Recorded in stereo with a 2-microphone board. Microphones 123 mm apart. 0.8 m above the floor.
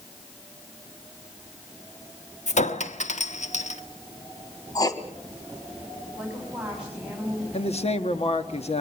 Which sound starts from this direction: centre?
A woman speaking, at 6.2 s.